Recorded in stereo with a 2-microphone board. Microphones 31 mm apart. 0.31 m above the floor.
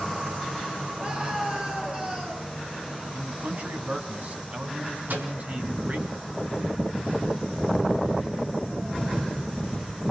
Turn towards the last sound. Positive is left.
turn(degrees=-70)  # may be behind; listen again after turning